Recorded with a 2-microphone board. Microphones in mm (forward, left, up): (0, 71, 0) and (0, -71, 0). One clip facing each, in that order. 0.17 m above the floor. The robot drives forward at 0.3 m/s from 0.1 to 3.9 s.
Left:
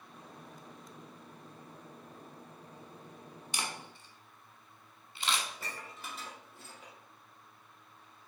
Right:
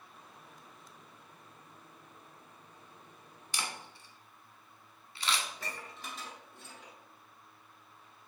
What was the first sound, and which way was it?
A camera shutter, 20° left (ahead or behind).